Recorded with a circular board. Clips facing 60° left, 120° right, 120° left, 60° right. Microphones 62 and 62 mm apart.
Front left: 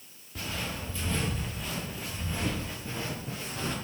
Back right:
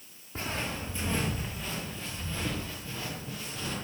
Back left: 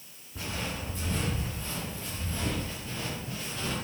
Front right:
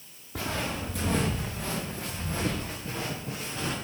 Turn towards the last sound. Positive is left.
turn(degrees=0)